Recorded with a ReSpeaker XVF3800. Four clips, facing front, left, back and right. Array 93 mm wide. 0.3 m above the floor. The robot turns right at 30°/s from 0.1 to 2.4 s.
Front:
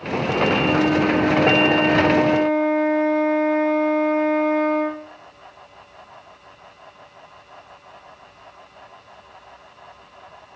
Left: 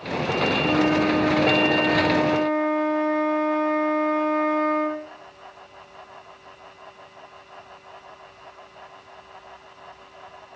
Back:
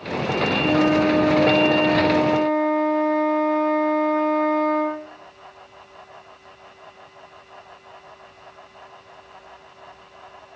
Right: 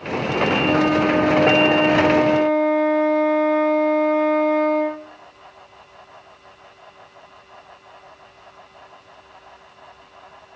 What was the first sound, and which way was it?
A flute, 135° right.